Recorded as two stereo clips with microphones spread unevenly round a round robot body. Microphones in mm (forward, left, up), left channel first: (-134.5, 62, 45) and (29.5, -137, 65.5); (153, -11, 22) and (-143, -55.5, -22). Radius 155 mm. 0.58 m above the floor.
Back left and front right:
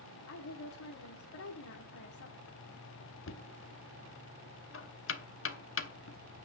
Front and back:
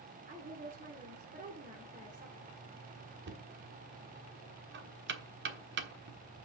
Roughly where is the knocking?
Behind left.